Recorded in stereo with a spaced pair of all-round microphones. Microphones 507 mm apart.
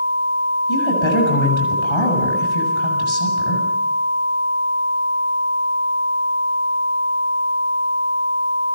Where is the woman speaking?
65° left (ahead or behind), 8 m.